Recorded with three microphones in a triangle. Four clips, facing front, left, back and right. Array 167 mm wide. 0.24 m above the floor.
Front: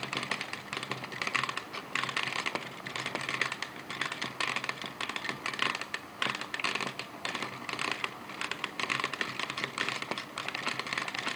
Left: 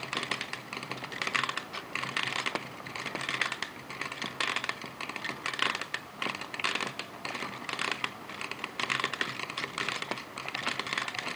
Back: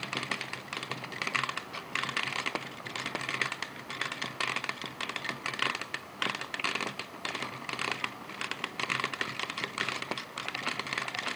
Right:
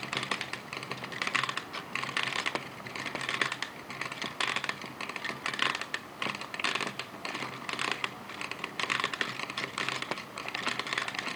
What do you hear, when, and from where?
Only background noise.